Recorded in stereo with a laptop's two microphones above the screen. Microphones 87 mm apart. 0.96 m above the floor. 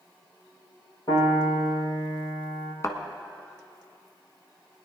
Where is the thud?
35° left (ahead or behind), 1.4 m.